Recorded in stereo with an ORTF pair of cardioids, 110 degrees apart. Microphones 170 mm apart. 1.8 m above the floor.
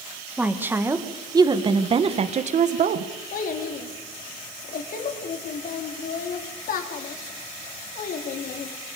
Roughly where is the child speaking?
Ahead left.